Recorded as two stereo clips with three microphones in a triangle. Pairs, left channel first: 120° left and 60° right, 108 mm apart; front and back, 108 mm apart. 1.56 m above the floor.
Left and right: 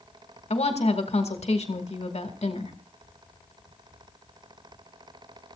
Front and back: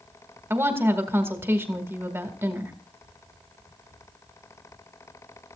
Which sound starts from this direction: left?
A woman speaking, at 0.5 s.